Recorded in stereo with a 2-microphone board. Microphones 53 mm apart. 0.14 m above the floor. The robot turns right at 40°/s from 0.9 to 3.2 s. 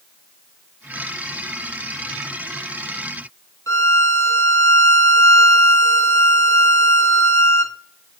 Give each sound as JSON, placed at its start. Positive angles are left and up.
{"t": 3.7, "sound": "a violin", "side_deg": 65, "distance_m": 0.7}